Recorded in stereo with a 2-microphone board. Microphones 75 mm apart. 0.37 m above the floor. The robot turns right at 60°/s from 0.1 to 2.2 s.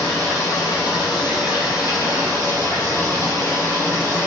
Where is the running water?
15° left, 1.6 m; by 4.3 s 145° left, 1.6 m.